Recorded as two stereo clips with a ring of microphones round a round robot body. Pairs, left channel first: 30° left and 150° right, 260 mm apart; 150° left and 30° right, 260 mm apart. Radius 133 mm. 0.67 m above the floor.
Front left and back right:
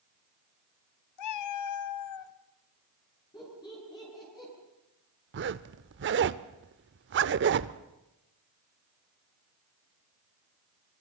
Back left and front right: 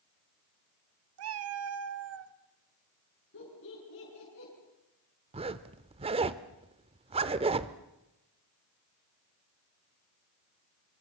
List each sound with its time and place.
1.2 s a cat meowing: 5° left, 1.0 m
3.3 s laughter: 105° left, 8 m
5.3 s a zipper: 100° right, 0.7 m